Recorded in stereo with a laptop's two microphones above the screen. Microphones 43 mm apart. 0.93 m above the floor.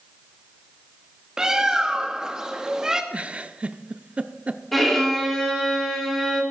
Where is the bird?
15° right (ahead or behind), 1.2 m.